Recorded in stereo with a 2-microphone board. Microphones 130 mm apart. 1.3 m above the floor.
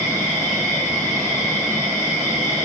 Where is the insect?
30° right (ahead or behind), 1.9 m.